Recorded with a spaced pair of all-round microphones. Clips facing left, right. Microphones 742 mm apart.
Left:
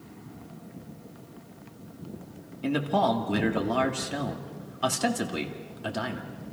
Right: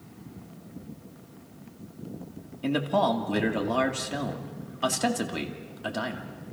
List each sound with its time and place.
2.6 s a man speaking: centre (ahead or behind), 2.5 m